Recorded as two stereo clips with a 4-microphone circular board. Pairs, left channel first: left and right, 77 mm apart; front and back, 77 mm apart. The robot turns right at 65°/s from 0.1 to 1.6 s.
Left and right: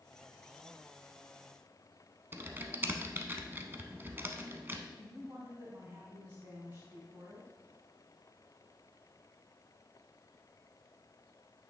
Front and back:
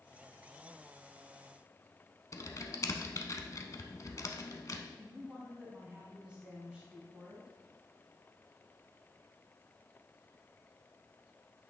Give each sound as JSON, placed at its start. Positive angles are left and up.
{"t": 2.3, "sound": "typing on a keyboard", "azimuth_deg": -30, "distance_m": 0.6}
{"t": 5.0, "sound": "a woman speaking", "azimuth_deg": -110, "distance_m": 1.3}